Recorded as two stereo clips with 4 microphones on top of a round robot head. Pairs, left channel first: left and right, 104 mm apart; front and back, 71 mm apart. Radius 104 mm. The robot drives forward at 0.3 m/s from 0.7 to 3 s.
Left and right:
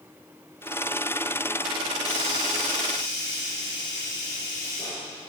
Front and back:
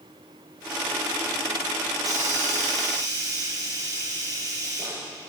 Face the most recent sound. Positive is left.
turn(degrees=150)